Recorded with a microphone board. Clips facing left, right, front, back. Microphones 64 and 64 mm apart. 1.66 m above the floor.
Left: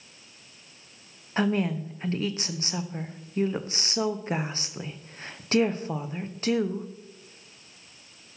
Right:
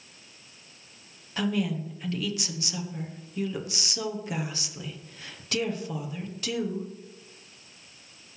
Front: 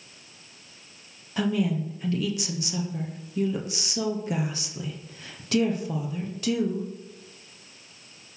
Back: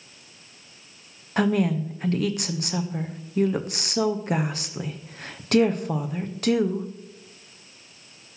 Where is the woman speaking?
145° left, 1.0 m.